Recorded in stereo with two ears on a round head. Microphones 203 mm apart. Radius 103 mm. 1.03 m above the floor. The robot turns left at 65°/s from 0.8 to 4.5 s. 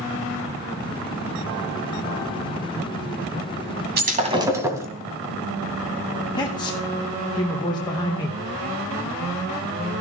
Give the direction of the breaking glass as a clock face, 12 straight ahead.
4 o'clock.